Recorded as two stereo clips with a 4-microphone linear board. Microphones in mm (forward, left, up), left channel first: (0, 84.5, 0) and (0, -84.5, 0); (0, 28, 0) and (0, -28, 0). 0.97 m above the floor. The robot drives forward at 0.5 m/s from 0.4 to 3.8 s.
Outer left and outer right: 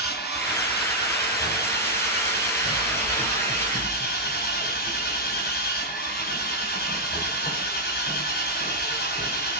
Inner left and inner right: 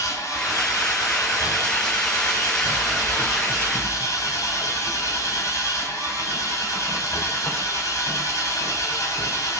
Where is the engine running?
80° left, 6 m; by 9.6 s 65° left (ahead or behind), 6.5 m.